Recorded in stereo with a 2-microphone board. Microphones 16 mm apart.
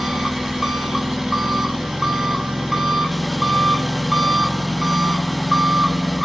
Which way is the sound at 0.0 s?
30° right (ahead or behind).